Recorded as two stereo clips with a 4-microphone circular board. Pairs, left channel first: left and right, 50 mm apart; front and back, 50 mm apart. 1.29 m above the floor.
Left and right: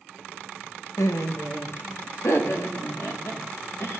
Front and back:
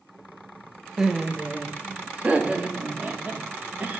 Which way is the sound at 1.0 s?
100° left.